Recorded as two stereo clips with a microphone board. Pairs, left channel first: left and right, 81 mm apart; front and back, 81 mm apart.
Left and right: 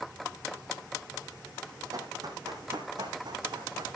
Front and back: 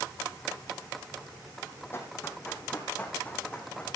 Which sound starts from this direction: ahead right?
Running footsteps, at 1.9 s.